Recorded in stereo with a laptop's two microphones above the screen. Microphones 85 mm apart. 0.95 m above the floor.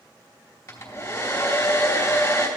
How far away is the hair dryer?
About 3 m.